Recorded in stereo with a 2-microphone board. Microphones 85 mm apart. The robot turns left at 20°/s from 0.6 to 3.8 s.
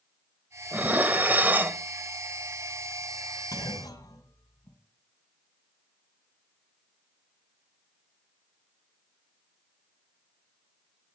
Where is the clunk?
40° left (ahead or behind), 2 m; by 4.8 s 45° left (ahead or behind), 2 m.